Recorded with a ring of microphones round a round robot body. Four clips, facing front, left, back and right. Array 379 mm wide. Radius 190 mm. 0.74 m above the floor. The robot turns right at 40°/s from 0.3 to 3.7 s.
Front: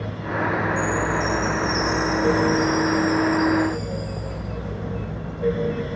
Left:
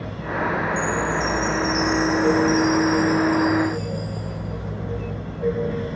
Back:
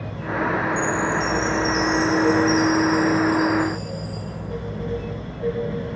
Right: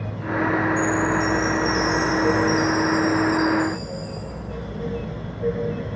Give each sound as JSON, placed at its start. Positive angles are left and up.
{"t": 0.8, "sound": "a chime", "azimuth_deg": 130, "distance_m": 2.5}